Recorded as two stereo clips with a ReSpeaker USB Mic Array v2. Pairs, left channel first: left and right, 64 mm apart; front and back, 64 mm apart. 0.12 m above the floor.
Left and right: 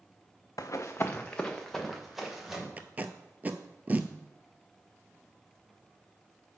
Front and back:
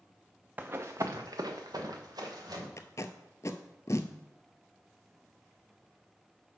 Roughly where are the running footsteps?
Behind left.